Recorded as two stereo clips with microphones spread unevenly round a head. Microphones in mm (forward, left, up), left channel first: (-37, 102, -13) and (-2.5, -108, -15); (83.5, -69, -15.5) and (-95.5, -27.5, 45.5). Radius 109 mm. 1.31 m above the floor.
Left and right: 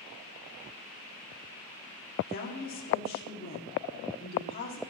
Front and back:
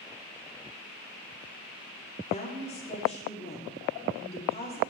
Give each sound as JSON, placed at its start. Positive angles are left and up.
{"t": 2.3, "sound": "a woman speaking", "azimuth_deg": 50, "distance_m": 3.5}